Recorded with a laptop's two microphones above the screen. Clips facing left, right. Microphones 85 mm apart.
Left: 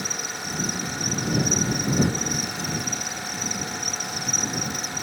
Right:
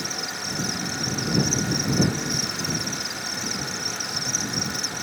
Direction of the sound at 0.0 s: 80° right.